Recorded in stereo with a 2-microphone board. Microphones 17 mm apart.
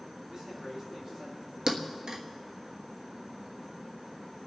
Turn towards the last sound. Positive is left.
turn(degrees=-50)  # may be behind; listen again after turning